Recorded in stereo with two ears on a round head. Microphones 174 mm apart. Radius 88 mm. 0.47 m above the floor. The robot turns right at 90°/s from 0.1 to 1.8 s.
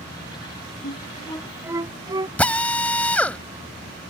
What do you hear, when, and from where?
0.8 s a flute: 60° left (ahead or behind); by 2.3 s 20° right (ahead or behind)
2.4 s a drill: 10° left (ahead or behind)